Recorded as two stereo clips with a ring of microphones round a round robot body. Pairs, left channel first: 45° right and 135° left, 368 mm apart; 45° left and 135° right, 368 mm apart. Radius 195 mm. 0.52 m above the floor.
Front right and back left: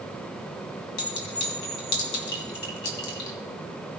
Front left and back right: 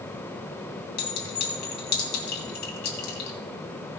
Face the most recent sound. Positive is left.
turn(degrees=0)